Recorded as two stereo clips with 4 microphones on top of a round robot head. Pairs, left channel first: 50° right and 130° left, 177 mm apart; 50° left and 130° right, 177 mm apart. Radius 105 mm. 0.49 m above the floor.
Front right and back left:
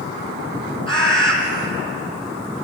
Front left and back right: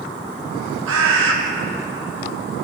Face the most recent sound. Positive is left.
turn(degrees=-115)